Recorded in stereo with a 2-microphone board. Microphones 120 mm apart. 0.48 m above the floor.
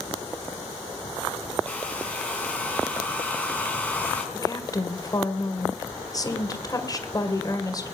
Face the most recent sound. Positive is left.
turn(degrees=30)  # may be behind; listen again after turning